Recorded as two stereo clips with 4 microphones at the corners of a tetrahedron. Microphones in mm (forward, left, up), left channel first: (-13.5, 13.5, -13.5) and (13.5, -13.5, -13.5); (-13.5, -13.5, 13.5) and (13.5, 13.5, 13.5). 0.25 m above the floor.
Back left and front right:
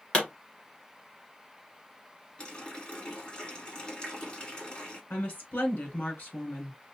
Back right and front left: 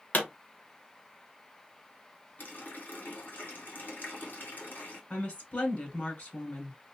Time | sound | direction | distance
0.1 | a pop | 165° right | 2.5 m
2.4 | a running tap | 165° right | 1.8 m
5.1 | a woman speaking | straight behind | 2.5 m